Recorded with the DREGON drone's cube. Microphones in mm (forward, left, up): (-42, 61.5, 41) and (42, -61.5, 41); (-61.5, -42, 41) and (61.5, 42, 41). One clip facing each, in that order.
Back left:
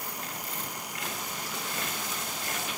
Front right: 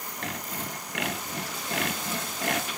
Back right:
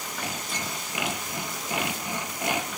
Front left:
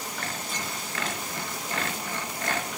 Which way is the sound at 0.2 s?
70° right.